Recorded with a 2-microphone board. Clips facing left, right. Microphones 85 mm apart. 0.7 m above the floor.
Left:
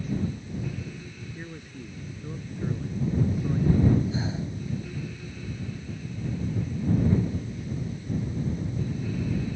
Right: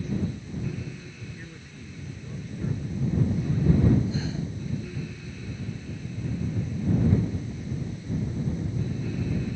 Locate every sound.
1.4 s a man speaking: 25° left (ahead or behind)
4.1 s breathing: 25° left (ahead or behind)